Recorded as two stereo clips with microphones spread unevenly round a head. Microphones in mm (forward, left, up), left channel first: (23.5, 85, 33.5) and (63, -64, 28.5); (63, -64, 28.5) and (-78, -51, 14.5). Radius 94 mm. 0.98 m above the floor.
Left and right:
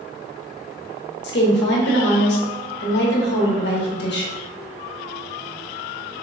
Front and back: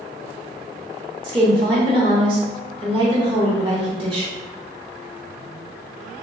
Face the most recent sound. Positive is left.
turn(degrees=115)